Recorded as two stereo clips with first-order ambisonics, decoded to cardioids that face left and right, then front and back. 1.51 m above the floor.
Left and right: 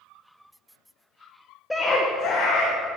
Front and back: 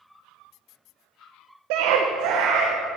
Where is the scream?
175° left, 1.2 m; by 2.7 s 135° left, 2.5 m.